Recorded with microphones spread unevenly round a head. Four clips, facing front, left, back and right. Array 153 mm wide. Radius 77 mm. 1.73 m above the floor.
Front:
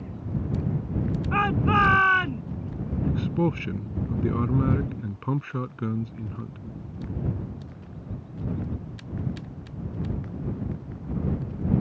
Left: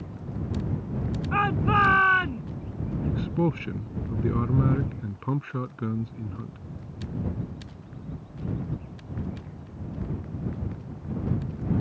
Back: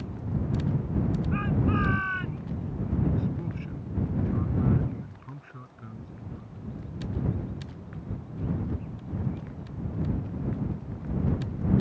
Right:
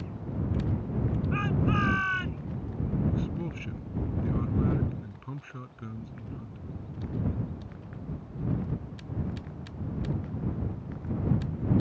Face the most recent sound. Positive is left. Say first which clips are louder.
# left 6 dB, front 5 dB
turn(degrees=40)